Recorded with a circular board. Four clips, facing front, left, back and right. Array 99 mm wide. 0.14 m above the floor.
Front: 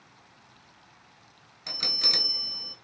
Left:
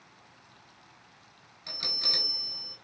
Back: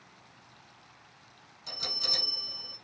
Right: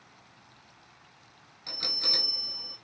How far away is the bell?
About 0.6 m.